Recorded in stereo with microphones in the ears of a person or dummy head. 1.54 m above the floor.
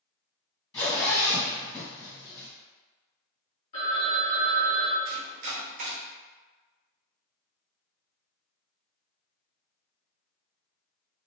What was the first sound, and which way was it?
A zipper, 15° left (ahead or behind).